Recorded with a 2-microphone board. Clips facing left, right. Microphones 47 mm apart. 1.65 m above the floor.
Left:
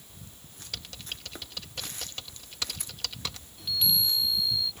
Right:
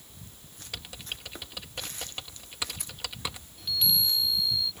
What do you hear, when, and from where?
0.7 s typing on a keyboard: 15° right (ahead or behind)
3.6 s a chime: centre (ahead or behind)